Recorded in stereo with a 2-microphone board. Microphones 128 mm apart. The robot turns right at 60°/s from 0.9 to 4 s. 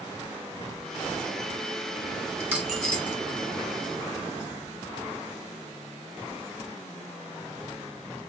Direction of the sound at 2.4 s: 20° right (ahead or behind).